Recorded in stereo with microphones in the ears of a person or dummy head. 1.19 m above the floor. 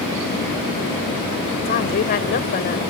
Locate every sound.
1.6 s a woman speaking: 45° left (ahead or behind)